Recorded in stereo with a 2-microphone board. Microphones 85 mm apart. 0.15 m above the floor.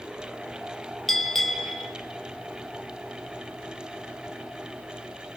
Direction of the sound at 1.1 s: Centre (ahead or behind).